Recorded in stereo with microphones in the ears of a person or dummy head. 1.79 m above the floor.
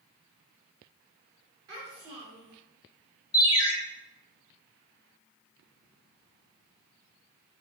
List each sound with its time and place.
1.7 s a child speaking: 20° right (ahead or behind), 1.1 m
3.3 s a ringtone: 20° left (ahead or behind), 0.8 m